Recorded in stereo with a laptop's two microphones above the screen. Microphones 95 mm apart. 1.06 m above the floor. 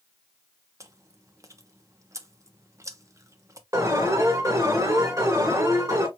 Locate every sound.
0.8 s chewing: 35° right (ahead or behind), 0.9 m
3.7 s an alarm: 35° right (ahead or behind), 2.5 m